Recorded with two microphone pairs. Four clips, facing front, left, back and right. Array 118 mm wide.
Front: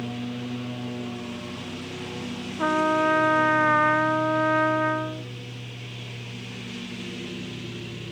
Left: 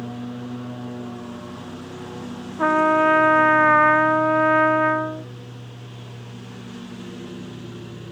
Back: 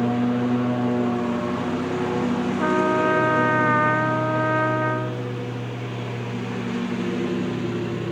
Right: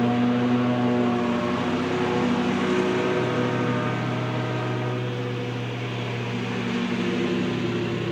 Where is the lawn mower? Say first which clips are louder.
Right 11 dB, back 11 dB; 125° right.